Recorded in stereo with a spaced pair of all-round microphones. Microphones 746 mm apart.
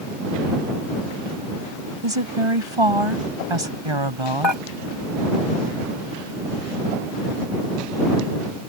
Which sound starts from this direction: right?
A woman speaking, at 2.0 s.